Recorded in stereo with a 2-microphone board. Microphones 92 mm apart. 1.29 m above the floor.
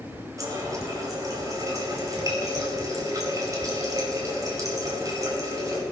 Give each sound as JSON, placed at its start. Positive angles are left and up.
{"t": 0.4, "sound": "a running tap", "side_deg": -35, "distance_m": 5.0}